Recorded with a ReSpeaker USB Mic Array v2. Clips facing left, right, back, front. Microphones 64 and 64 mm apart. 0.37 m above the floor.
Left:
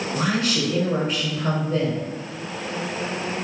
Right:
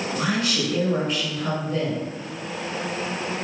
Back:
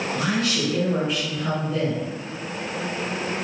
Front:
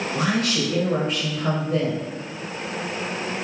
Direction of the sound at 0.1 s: 30° left.